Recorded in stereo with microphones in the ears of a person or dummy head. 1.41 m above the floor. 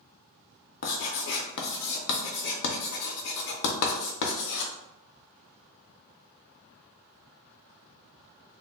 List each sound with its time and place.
0.8 s writing: 60° left (ahead or behind), 0.5 m